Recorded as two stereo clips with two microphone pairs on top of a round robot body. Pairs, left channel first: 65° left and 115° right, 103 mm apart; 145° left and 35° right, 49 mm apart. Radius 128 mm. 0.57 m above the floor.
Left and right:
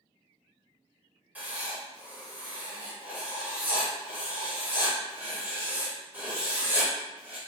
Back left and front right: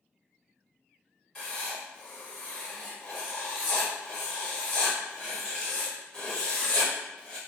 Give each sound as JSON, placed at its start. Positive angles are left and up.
{"t": 1.4, "sound": "writing", "azimuth_deg": -160, "distance_m": 1.2}